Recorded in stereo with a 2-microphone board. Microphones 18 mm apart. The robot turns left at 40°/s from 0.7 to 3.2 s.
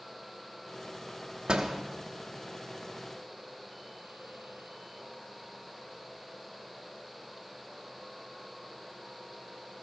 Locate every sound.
1.5 s a door slam: 60° right (ahead or behind), 1.0 m; by 1.8 s 45° right (ahead or behind), 1.0 m